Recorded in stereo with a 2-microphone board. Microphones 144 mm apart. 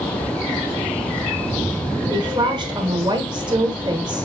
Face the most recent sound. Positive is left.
turn(degrees=-30)  # may be behind; listen again after turning